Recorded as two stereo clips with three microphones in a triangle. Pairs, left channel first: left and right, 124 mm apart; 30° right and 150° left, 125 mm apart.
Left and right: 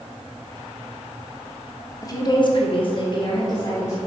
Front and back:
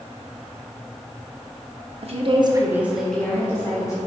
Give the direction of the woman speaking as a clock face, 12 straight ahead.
7 o'clock.